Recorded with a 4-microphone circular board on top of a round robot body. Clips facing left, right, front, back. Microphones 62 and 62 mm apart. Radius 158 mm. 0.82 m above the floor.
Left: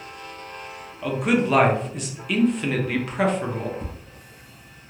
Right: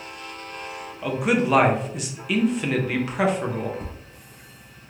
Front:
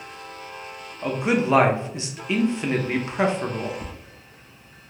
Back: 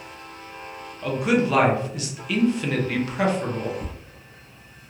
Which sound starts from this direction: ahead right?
Tapping, at 3.8 s.